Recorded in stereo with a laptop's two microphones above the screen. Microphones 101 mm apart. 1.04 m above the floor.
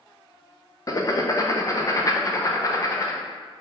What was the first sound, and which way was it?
Writing, 35° left (ahead or behind).